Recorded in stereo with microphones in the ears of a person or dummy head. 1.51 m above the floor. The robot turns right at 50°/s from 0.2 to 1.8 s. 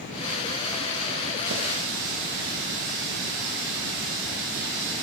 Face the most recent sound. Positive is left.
turn(degrees=-50)  # may be behind; listen again after turning